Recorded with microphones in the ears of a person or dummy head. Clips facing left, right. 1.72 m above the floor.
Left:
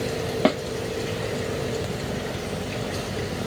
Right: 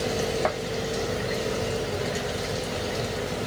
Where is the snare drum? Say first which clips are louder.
Left 6 dB; 35° left (ahead or behind).